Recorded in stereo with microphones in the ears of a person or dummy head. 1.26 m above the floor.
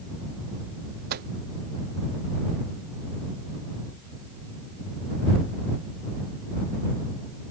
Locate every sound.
1.1 s a microwave: 40° right (ahead or behind)